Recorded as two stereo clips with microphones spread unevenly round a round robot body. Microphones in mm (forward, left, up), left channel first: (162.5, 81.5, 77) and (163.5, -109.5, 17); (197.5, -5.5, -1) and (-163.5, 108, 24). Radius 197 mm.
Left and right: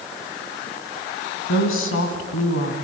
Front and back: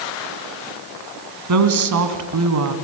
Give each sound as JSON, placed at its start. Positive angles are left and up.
{"t": 1.5, "sound": "a woman speaking", "azimuth_deg": 120, "distance_m": 2.5}